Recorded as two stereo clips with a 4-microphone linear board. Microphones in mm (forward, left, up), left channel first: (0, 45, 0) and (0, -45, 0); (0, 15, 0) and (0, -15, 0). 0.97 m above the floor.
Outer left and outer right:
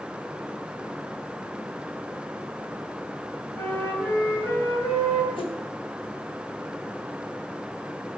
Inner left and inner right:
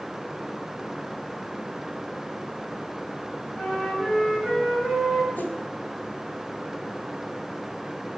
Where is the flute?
20° left (ahead or behind), 6 m.